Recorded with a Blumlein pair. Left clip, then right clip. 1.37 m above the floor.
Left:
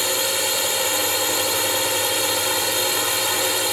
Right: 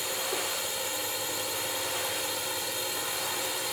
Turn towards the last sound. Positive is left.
turn(degrees=60)